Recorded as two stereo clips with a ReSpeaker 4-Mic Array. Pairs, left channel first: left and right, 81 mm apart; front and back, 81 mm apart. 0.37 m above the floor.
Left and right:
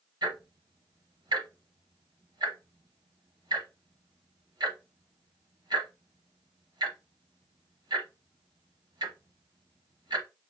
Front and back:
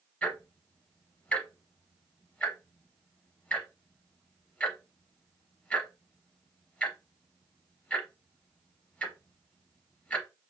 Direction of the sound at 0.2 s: 75° right.